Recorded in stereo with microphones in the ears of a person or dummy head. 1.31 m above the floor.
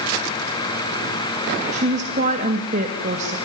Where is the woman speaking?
35° right (ahead or behind), 1.9 m.